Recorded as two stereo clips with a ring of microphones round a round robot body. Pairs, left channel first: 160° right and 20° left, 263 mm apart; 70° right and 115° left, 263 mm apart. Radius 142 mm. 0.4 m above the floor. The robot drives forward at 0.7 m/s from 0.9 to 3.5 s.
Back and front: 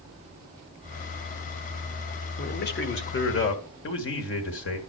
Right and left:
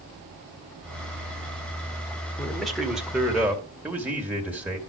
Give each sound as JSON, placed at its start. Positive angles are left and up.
{"t": 2.4, "sound": "a man speaking", "azimuth_deg": -150, "distance_m": 1.4}